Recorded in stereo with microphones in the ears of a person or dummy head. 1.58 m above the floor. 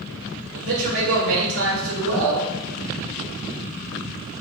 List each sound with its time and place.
0.5 s a man speaking: 75° right (ahead or behind), 1.7 m